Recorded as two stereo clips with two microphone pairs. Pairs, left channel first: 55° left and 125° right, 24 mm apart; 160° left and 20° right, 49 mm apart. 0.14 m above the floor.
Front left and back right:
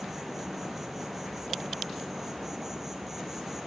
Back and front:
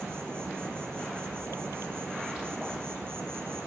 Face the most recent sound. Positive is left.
turn(degrees=-45)